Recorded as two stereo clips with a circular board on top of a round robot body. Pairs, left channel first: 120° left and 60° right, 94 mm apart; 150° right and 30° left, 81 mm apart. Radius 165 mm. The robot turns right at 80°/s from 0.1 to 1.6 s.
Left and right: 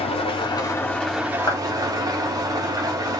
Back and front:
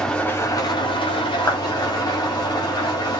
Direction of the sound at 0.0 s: 125° left.